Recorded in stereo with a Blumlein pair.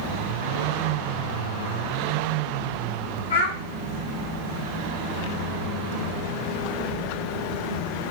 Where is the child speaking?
60° left, 0.9 m.